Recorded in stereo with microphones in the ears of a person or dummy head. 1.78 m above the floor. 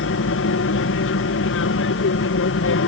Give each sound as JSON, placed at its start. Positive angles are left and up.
{"t": 0.0, "sound": "an aircraft", "side_deg": 60}